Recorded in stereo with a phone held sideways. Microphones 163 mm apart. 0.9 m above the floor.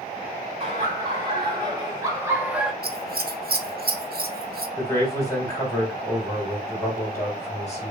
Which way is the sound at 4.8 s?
20° left (ahead or behind).